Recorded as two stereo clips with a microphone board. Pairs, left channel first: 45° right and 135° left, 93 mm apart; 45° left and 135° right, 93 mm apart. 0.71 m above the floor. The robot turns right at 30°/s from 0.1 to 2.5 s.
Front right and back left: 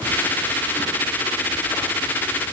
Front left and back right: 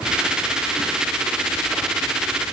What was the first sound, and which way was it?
Only background noise.